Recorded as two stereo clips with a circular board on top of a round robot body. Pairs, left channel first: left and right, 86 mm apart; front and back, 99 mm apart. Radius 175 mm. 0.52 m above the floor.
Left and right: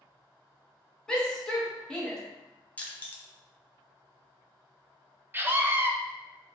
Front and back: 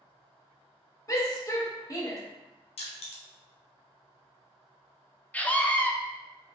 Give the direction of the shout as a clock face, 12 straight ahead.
12 o'clock.